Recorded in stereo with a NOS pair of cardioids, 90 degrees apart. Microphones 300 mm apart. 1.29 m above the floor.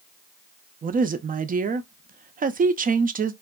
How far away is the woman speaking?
About 0.5 m.